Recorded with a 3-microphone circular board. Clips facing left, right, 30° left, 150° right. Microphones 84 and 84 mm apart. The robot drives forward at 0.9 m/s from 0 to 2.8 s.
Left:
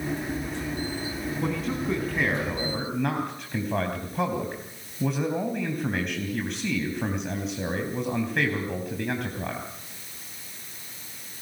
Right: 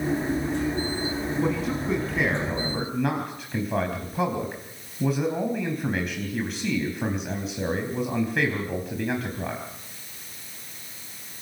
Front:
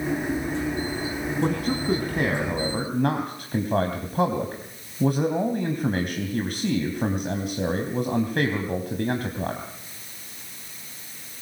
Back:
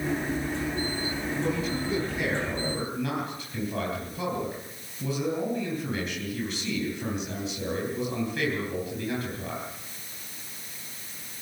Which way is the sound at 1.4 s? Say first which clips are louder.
Right 1 dB, front 5 dB; straight ahead.